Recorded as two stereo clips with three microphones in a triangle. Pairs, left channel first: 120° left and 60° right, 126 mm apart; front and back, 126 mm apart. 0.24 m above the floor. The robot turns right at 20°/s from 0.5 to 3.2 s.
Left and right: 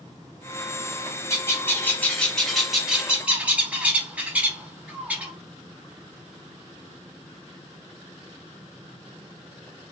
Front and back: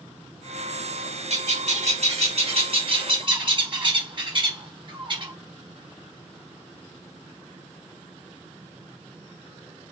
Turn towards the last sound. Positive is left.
turn(degrees=-140)